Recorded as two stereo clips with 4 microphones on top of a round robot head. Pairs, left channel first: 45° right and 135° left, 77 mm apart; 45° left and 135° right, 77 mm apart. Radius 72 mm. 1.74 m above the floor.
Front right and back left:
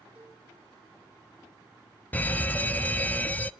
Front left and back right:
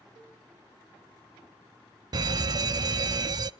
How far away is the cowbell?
About 7 m.